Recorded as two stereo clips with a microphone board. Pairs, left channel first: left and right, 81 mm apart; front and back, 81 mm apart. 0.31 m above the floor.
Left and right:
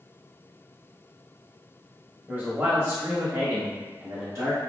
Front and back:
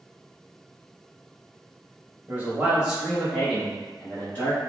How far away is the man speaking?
About 1.2 m.